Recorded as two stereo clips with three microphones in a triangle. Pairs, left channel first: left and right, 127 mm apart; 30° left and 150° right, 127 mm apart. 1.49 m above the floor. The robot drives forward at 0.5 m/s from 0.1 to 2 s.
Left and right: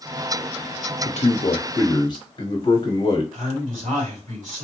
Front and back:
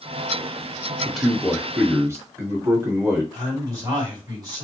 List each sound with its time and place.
1.1 s a man speaking: 115° left, 0.7 m; by 3.2 s 140° left, 1.0 m
3.3 s a man speaking: 90° right, 2.5 m